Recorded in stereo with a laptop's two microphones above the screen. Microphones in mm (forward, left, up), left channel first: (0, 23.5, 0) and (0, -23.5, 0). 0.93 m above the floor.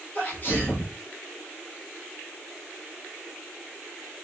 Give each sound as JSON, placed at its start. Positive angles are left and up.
{"t": 0.1, "sound": "a sneeze", "side_deg": 35, "distance_m": 1.3}